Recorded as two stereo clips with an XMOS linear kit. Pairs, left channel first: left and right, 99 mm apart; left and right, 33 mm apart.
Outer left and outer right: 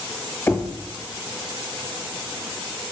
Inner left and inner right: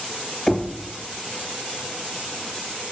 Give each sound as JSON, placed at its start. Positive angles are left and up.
{"t": 0.5, "sound": "knocking", "side_deg": 20, "distance_m": 1.4}